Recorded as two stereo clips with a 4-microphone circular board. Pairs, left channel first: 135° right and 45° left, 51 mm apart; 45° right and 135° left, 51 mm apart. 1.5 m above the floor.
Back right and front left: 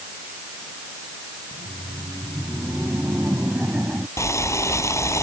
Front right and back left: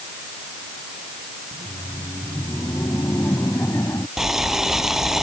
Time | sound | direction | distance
1.5 | laughter | 25° right | ?
4.2 | boiling | 145° right | ?